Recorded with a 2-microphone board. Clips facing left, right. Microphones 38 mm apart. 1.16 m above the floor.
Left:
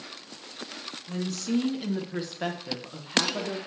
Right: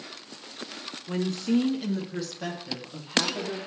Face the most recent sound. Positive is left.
turn(degrees=60)  # may be behind; listen again after turning